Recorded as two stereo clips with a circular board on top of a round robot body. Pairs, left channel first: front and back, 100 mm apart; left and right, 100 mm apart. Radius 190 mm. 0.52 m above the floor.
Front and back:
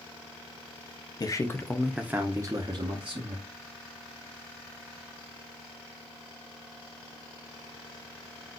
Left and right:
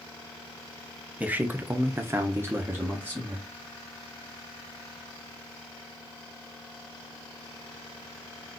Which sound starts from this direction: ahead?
A man speaking, at 1.2 s.